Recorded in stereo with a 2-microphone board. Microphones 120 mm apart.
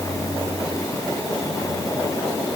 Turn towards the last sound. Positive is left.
No sound to turn to.